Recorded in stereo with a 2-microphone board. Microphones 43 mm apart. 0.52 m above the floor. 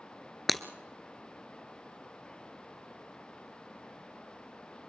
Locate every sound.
0.5 s breaking glass: centre (ahead or behind), 1.1 m